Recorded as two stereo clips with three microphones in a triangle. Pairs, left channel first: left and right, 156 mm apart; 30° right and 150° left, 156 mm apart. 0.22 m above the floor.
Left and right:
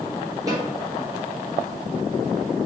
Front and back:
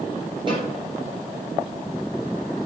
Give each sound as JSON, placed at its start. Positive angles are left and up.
{"t": 0.5, "sound": "a snare drum", "azimuth_deg": -155, "distance_m": 3.0}